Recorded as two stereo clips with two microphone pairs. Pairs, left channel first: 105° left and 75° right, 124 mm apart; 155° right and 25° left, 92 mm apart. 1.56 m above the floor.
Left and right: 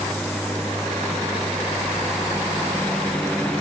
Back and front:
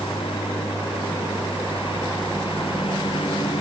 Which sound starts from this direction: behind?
A lawn mower, at 0.0 s.